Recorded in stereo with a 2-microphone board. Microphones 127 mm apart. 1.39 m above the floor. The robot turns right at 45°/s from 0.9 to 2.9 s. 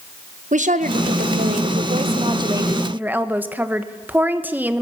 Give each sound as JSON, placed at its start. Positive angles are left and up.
{"t": 0.5, "sound": "a woman speaking", "azimuth_deg": -105, "distance_m": 1.3}